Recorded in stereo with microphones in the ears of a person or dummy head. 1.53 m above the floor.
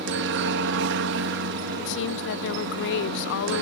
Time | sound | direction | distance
0.0 | a helicopter | 60° right (ahead or behind) | ?
1.8 | a woman speaking | 70° left (ahead or behind) | ?